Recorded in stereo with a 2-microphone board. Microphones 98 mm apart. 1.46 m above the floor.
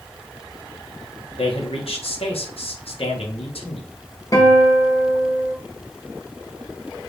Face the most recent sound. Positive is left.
turn(degrees=40)  # may be behind; listen again after turning